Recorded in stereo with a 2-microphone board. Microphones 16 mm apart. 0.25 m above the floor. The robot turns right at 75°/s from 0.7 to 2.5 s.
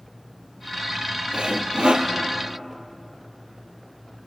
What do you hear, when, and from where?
1.3 s sawing: 115° right, 1.9 m; by 2.1 s 55° right, 1.9 m